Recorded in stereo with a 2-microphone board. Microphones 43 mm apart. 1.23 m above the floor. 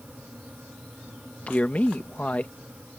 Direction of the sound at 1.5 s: 35° left (ahead or behind).